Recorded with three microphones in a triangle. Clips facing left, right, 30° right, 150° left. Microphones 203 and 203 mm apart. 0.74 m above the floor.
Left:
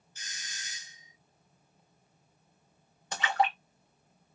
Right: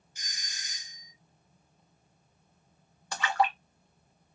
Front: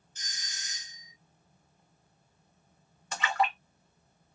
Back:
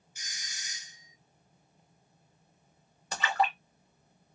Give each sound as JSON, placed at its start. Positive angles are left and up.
{"t": 0.1, "sound": "a doorbell", "azimuth_deg": -145, "distance_m": 0.9}
{"t": 3.1, "sound": "a splash", "azimuth_deg": 145, "distance_m": 1.1}